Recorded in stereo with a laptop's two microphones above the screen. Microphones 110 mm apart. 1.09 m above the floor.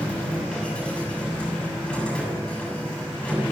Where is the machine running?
10° left (ahead or behind), 6.5 m.